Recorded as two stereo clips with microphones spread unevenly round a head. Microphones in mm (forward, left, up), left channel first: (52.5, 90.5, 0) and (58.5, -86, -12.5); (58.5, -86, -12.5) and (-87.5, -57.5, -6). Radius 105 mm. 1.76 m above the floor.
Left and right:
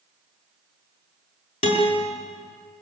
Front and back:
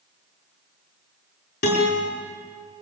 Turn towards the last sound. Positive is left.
turn(degrees=35)